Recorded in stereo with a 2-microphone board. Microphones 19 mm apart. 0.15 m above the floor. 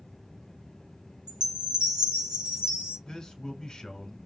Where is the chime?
55° right (ahead or behind), 2.5 m.